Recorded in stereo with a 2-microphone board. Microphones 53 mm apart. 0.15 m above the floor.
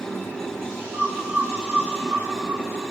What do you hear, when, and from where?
0.9 s a bird: 55° right (ahead or behind), 2.5 m